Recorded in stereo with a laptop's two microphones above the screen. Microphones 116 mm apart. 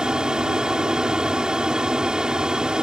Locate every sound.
0.0 s an aircraft: 5° right (ahead or behind)